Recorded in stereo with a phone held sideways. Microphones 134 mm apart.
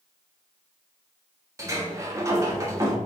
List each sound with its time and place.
1.6 s a sliding door: 25° right (ahead or behind), 1.3 m